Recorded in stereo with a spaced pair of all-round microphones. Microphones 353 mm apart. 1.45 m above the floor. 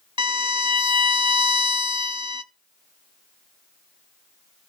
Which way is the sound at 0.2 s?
50° left (ahead or behind).